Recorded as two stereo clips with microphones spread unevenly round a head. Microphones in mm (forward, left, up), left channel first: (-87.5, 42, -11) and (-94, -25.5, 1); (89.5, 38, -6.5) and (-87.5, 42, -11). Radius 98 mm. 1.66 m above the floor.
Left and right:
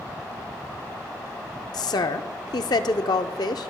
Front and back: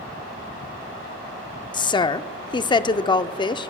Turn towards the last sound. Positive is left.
turn(degrees=60)